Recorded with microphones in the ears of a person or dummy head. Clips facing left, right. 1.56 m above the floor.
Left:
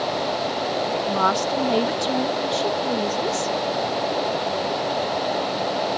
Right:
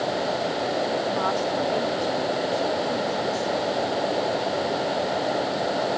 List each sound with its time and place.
1.1 s a woman speaking: 80° left